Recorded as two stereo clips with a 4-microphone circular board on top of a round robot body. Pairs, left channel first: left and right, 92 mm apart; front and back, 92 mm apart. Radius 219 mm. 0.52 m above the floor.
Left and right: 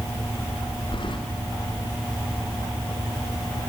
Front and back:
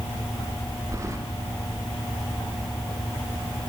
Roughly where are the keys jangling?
Behind left.